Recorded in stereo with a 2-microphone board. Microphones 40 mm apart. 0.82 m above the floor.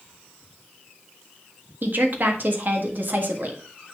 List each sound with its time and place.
1.8 s a woman speaking: 55° right (ahead or behind), 1.5 m